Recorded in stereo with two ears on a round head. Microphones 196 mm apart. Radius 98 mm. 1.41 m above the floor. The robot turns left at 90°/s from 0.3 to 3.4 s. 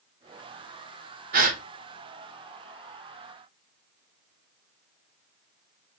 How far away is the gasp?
About 0.7 m.